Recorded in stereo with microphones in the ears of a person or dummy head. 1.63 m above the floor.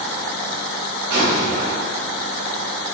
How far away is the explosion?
About 1.8 m.